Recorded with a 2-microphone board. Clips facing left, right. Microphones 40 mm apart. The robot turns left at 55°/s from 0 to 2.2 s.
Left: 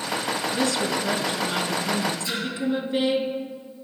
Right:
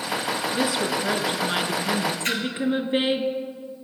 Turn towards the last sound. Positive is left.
turn(degrees=-50)  # may be behind; listen again after turning